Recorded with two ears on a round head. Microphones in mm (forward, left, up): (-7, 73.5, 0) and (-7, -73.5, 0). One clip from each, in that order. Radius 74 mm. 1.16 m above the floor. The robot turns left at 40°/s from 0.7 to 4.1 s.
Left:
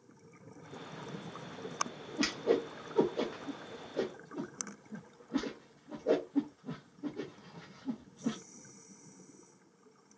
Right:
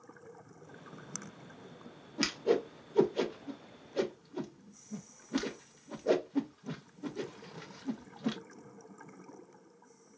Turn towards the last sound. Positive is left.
turn(degrees=-60)  # may be behind; listen again after turning